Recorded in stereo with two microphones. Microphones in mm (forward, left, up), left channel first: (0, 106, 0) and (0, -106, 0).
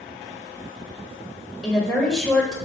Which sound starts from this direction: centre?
A woman speaking, at 1.6 s.